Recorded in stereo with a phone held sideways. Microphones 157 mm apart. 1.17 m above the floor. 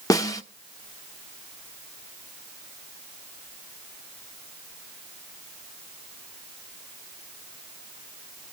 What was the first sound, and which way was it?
A snare drum, 20° left (ahead or behind).